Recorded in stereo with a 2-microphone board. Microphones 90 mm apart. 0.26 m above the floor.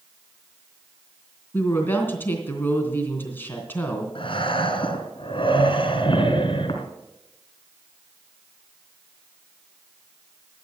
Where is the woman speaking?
20° left (ahead or behind), 3 m.